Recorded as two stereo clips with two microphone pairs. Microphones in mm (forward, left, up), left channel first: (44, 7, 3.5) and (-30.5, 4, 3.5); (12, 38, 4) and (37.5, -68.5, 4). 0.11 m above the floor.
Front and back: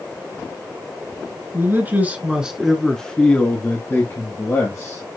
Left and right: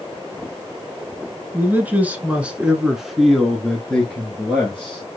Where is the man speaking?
140° right, 1.5 m; by 5.0 s 30° left, 1.9 m.